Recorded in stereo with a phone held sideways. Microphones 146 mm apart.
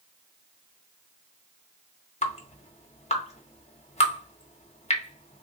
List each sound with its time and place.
2.2 s dripping: 50° left (ahead or behind), 0.8 m